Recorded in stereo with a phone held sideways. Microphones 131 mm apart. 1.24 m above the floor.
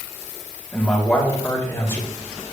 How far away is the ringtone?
No ringtone in this recording.